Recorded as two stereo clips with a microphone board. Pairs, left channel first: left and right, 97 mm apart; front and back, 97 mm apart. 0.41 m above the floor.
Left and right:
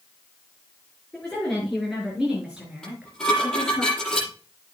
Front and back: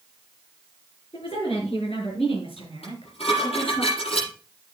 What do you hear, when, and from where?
1.1 s a woman speaking: 5° left, 5.5 m; by 3.8 s 30° right, 5 m
2.8 s dishes clattering: 5° left, 7 m